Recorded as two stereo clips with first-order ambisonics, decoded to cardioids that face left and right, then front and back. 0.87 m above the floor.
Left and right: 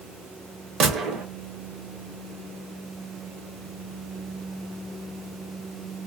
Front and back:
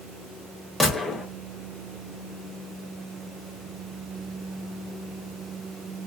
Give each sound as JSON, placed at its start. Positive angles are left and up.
{"t": 0.8, "sound": "a gunshot", "azimuth_deg": -85, "distance_m": 0.7}